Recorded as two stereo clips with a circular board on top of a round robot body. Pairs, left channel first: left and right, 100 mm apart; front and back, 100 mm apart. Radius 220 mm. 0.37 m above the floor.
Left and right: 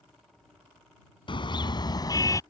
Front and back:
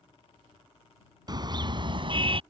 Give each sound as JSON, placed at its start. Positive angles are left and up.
{"t": 1.3, "sound": "a car horn", "azimuth_deg": 130}